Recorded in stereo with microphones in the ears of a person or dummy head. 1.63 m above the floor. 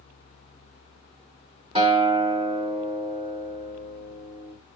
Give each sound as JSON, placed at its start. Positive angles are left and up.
{"t": 1.8, "sound": "a guitar", "side_deg": -30, "distance_m": 3.0}